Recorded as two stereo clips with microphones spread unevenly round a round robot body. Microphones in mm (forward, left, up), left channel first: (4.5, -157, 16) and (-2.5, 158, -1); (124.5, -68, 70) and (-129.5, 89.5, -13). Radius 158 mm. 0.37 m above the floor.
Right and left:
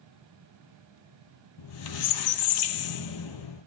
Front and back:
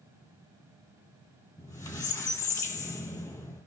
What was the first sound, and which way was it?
A squeak, 105° right.